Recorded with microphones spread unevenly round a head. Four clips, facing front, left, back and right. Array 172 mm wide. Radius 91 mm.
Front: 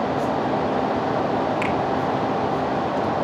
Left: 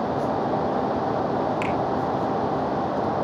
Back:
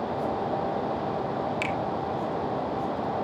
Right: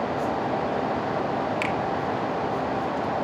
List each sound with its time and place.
1.6 s a finger snap: 150° right, 1.4 m